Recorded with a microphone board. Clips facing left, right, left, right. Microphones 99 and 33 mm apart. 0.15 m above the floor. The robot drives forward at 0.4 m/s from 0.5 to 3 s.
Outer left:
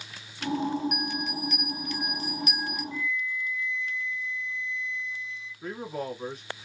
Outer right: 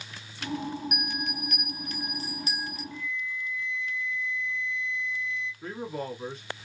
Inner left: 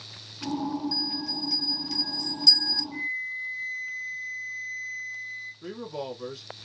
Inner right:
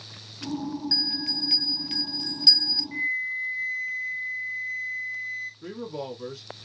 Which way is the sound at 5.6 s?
5° left (ahead or behind).